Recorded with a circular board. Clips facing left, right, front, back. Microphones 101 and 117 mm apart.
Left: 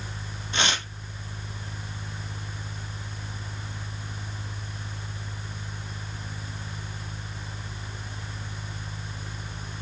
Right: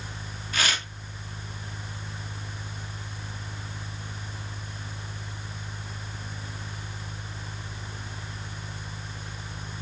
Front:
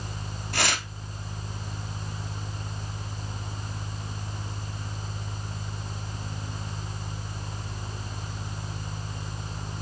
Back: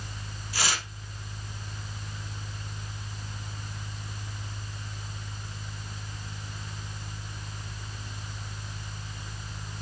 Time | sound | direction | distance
0.5 | tearing paper | 25° left | 1.8 m